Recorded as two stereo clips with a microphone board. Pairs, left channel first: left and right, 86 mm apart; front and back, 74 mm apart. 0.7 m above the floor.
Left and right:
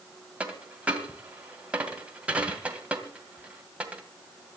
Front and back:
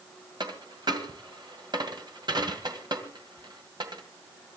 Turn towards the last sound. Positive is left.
turn(degrees=-165)